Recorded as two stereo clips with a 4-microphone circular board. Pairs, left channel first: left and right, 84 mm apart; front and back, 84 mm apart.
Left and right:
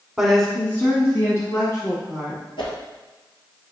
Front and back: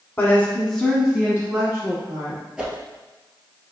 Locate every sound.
0.2 s a woman speaking: 10° right, 1.1 m; by 2.4 s 125° left, 2 m
2.6 s a whoosh: 100° left, 1.3 m